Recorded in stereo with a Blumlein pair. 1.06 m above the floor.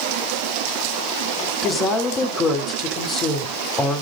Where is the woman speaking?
20° left, 2.5 m.